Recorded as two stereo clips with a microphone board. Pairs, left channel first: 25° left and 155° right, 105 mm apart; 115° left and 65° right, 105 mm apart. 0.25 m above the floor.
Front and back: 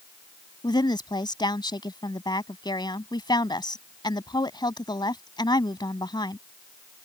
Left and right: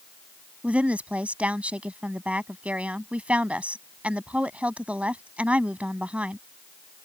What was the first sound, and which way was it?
A woman speaking, 5° left.